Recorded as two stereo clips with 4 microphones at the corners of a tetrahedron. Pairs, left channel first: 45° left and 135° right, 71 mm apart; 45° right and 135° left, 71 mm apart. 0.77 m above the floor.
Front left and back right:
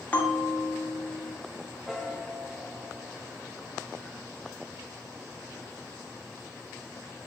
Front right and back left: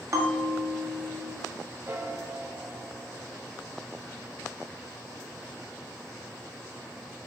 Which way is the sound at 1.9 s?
140° left.